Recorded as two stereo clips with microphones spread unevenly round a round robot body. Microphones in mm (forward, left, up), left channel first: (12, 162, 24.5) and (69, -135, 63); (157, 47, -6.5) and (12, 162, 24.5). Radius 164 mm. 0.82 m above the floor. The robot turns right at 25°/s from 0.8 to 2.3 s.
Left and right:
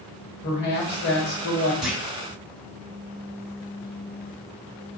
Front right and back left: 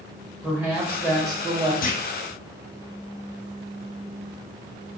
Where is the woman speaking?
55° left, 1.4 m; by 1.7 s 75° left, 1.4 m.